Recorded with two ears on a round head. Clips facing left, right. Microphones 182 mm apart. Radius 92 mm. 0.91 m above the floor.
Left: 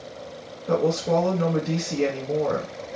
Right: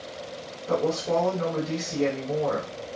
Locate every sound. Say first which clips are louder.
0.7 s a woman speaking: left 3 dB; 30° left (ahead or behind), 1.2 m